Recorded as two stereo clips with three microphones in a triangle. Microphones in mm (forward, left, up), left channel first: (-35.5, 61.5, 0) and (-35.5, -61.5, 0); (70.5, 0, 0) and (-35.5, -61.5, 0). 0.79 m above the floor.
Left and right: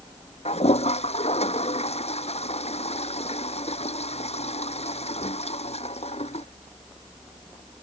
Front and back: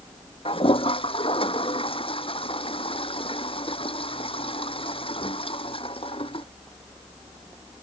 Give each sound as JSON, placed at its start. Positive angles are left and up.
{"t": 0.5, "sound": "a toilet flushing", "azimuth_deg": 65}